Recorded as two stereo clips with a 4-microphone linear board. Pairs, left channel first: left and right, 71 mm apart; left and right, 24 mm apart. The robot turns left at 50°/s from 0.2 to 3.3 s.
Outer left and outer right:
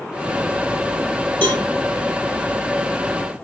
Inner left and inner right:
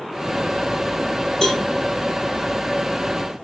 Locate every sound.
1.4 s a cowbell: 30° left (ahead or behind), 1.5 m; by 1.6 s 35° left (ahead or behind), 1.5 m